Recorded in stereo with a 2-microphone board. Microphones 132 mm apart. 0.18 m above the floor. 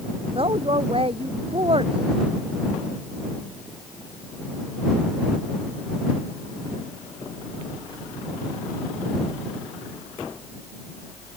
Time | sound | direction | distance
0.3 | a woman speaking | 45° right (ahead or behind) | ?